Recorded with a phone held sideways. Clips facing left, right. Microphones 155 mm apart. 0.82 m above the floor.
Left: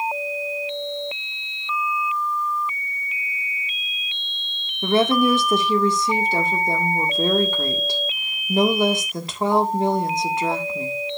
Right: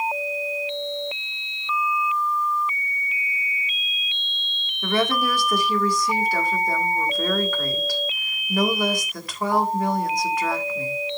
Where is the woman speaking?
25° left (ahead or behind), 1.8 m.